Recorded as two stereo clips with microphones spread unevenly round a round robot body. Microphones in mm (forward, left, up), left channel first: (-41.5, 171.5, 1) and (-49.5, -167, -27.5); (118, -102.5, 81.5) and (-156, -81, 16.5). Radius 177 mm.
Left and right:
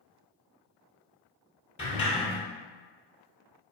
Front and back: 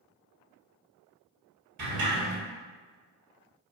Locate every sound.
1.8 s a sliding door: 160° left, 1.9 m